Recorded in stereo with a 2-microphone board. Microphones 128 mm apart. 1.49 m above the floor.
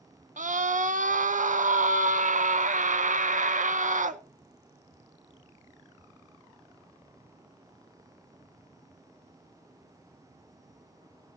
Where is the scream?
85° right, 0.8 m.